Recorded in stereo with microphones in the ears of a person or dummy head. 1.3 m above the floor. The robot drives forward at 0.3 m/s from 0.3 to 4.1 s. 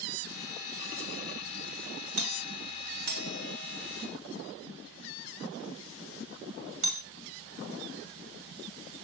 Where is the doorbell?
80° right, 2 m; by 7.0 s 65° right (ahead or behind), 2.5 m.